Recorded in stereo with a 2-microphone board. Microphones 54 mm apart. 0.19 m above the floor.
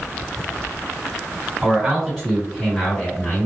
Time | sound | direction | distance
1.6 | a man speaking | 15° right (ahead or behind) | 2.0 m